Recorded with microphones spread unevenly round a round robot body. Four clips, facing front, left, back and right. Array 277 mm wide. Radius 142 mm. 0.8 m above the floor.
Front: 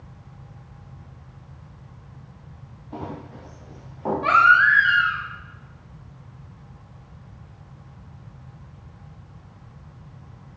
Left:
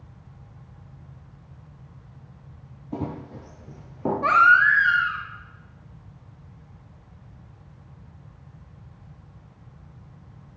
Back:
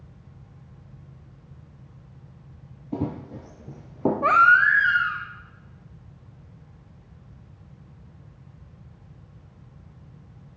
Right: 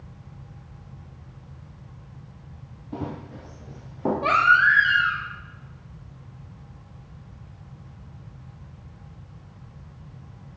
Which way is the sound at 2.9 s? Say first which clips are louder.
Left 1 dB, back 5 dB; 170° left.